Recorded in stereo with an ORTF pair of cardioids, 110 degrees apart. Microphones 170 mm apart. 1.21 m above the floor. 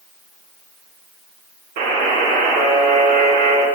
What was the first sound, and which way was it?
A buzzer, 60° right.